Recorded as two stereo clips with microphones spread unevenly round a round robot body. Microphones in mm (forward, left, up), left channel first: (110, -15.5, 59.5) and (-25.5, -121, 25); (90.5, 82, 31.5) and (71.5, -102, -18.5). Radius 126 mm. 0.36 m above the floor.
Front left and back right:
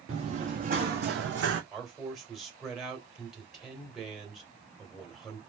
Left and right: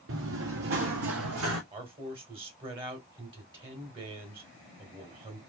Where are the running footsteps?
85° right, 1.3 m; by 1.6 s 130° right, 1.0 m.